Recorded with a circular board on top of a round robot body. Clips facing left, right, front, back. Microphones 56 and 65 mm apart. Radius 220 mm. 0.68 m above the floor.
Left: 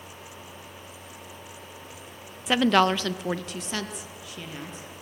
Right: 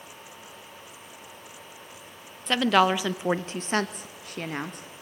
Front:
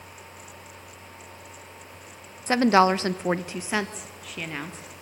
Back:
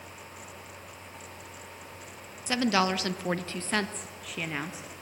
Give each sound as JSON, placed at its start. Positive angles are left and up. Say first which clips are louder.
{"t": 2.5, "sound": "a woman speaking", "louder": "even, front 8 dB", "azimuth_deg": 10, "distance_m": 1.0}